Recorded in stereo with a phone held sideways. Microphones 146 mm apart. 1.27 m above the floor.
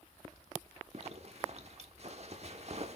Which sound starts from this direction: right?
A zipper, at 0.9 s.